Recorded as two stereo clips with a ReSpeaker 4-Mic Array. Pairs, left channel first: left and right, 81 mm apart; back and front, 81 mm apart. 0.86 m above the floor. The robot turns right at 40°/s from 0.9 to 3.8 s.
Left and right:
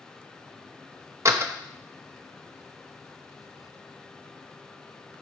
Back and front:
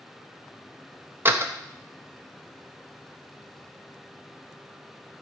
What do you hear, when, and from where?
1.2 s a door slam: 50° right, 0.7 m; by 1.5 s 40° right, 0.7 m